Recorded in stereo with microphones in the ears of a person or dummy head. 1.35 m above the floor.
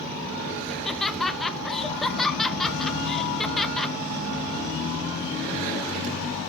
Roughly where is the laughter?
Centre.